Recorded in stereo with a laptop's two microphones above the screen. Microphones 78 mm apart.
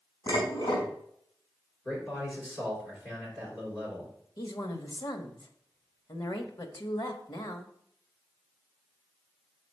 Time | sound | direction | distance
0.3 | dishes clattering | 80° left | 4.5 m
1.9 | a man speaking | 25° left (ahead or behind) | 3 m
4.4 | a woman speaking | 60° left (ahead or behind) | 1.2 m